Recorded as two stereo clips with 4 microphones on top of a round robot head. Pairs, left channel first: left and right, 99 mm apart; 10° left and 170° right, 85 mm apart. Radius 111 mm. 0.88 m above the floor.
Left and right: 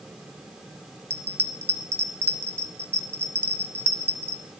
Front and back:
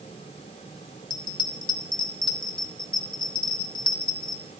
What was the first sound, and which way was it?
A bell, 25° right.